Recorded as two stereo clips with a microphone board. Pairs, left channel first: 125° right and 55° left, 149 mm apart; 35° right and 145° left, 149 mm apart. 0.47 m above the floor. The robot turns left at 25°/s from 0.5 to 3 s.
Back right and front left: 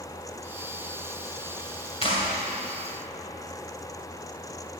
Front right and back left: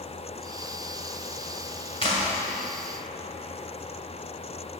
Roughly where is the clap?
Right.